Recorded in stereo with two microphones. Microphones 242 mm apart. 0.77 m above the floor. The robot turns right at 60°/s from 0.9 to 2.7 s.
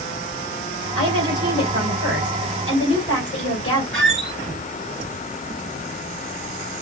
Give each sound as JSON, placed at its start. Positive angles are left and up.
{"t": 0.9, "sound": "a woman speaking", "azimuth_deg": -80, "distance_m": 3.5}
{"t": 3.9, "sound": "a squeak", "side_deg": -60, "distance_m": 1.2}